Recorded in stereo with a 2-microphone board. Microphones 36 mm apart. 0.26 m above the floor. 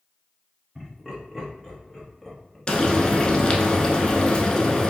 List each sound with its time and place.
0.8 s laughter: 20° right (ahead or behind), 1.0 m; by 2.6 s 5° left (ahead or behind), 1.5 m
2.7 s frying: 20° left (ahead or behind), 0.6 m